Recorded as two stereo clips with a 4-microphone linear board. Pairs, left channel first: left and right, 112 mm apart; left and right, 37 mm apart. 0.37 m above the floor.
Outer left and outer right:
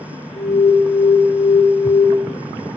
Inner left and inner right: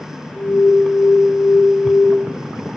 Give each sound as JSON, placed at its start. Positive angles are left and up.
{"t": 0.3, "sound": "an alarm", "side_deg": 75, "distance_m": 1.6}